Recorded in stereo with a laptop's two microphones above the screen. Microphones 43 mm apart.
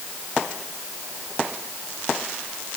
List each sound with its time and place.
Only background noise.